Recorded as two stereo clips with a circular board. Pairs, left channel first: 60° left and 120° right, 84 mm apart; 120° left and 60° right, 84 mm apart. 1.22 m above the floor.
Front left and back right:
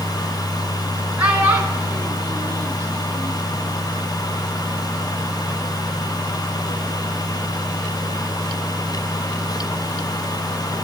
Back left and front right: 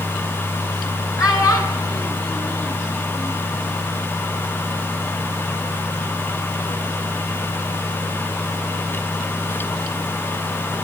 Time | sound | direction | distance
1.2 | a child speaking | 165° left | 6.5 m